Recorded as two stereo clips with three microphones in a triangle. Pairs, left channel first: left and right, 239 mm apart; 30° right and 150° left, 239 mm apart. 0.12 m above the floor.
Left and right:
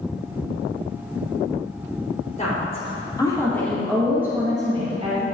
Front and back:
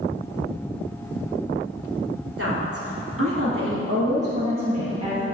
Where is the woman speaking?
145° left, 4 m; by 5.2 s 145° right, 3.5 m.